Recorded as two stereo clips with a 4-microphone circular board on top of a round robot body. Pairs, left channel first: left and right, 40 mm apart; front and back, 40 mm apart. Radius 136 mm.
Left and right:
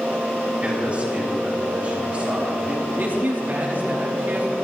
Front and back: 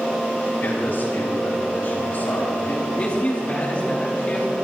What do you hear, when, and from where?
0.6 s a man speaking: 30° right, 5 m
2.9 s a man speaking: 55° right, 4 m